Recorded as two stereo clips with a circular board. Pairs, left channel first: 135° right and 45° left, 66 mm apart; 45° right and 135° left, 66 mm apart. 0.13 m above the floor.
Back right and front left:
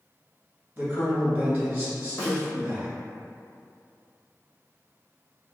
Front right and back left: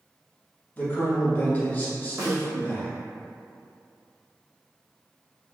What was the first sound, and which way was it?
A man speaking, 5° right.